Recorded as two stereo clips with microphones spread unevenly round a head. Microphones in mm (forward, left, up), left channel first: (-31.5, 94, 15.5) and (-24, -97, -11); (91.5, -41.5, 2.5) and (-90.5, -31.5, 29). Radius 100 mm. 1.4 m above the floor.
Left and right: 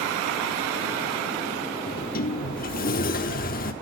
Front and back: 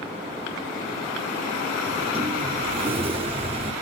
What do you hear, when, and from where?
1.9 s a sliding door: 120° left, 1.5 m